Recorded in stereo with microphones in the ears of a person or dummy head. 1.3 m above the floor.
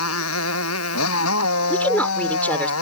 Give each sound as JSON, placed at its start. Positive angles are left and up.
{"t": 0.0, "sound": "a motorcycle", "side_deg": 75}
{"t": 1.7, "sound": "a woman speaking", "side_deg": 10}